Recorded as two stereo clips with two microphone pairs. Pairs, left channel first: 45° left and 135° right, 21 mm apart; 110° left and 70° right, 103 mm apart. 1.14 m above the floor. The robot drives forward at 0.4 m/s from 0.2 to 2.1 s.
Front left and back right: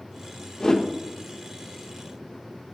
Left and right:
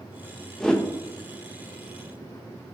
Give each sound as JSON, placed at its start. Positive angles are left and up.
{"t": 0.6, "sound": "a whoosh", "azimuth_deg": 30, "distance_m": 0.6}